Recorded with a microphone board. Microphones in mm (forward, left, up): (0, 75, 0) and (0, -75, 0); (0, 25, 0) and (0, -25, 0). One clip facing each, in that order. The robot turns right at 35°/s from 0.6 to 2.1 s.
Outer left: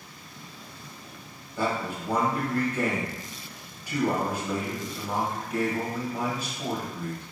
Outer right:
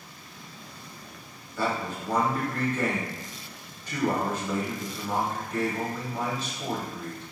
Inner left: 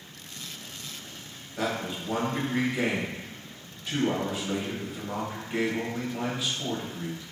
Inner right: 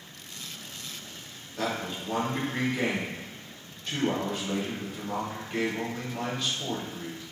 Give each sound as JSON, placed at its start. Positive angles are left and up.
{"t": 1.6, "sound": "a man speaking", "side_deg": 15, "distance_m": 0.9}